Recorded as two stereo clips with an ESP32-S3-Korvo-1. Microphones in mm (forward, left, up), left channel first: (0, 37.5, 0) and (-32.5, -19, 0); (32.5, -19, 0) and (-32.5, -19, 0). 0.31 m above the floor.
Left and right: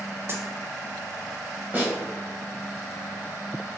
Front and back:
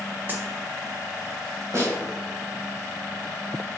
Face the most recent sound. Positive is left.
turn(degrees=-175)